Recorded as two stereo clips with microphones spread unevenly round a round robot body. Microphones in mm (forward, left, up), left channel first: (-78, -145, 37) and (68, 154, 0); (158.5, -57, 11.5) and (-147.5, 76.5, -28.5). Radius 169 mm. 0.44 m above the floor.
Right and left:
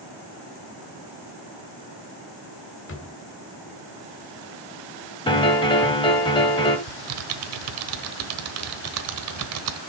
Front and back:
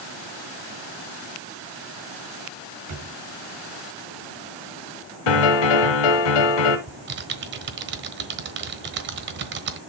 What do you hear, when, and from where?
2.9 s a drawer: 170° right, 1.5 m
5.3 s a piano: 40° right, 1.3 m
6.9 s typing on a keyboard: 105° left, 1.1 m